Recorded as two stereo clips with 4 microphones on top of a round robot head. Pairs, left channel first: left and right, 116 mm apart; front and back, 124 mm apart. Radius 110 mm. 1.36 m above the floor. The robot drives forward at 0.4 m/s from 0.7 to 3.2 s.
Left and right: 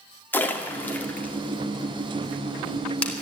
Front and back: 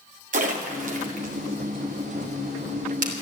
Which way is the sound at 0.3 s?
165° left.